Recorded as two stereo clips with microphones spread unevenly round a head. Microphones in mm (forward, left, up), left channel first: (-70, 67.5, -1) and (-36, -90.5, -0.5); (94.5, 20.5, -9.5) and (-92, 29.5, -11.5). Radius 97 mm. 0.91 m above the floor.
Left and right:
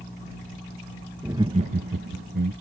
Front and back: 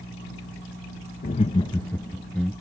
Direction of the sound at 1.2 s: Straight ahead.